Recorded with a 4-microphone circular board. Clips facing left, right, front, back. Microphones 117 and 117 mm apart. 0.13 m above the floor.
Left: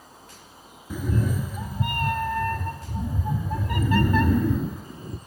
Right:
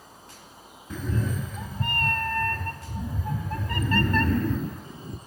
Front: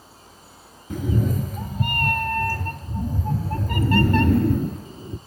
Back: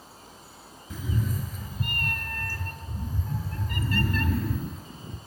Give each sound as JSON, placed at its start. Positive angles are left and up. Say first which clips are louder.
{"t": 0.9, "sound": "a cat meowing", "louder": "left 3 dB, front 8 dB", "azimuth_deg": 10, "distance_m": 0.5}